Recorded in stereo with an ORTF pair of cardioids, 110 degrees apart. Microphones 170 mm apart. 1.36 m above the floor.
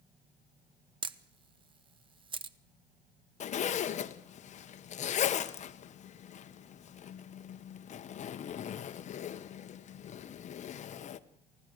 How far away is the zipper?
About 1.0 m.